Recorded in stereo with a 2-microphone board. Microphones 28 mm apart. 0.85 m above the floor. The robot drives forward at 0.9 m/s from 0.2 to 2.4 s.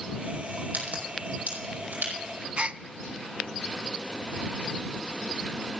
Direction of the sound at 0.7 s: 75° right (ahead or behind).